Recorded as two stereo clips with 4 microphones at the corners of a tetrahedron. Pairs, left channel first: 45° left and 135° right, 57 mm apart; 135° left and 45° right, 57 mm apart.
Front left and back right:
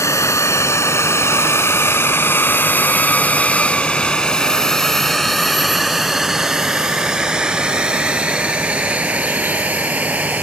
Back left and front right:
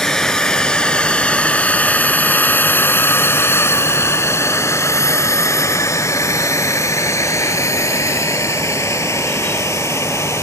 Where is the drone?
50° left; by 10.4 s 160° left.